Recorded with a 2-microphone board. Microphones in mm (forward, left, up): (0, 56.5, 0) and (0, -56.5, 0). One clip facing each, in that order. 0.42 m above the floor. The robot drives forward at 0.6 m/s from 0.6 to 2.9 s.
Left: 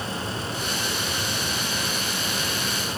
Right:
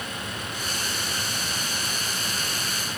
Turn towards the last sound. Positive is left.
No sound to turn to.